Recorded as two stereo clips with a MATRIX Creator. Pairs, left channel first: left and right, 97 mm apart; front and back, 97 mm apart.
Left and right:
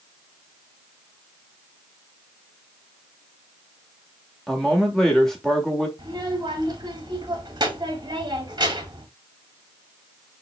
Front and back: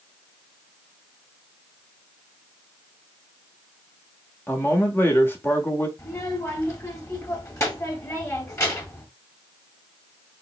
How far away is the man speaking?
About 1.1 m.